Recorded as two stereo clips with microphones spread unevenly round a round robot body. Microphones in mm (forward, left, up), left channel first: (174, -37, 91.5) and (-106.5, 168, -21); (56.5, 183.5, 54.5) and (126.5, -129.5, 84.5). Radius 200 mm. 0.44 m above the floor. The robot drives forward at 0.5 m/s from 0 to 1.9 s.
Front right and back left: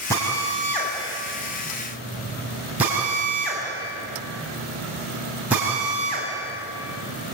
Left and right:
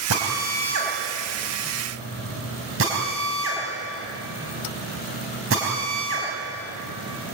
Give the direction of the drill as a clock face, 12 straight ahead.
4 o'clock.